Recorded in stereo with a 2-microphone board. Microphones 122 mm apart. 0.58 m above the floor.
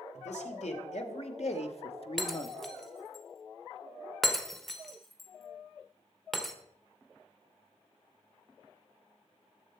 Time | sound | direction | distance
0.1 | a man speaking | 70° left (ahead or behind) | 2 m
2.2 | breaking glass | 5° left (ahead or behind) | 1.2 m